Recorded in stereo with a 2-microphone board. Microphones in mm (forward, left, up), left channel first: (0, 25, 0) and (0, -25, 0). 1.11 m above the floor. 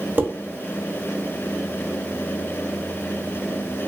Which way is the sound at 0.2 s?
35° right (ahead or behind).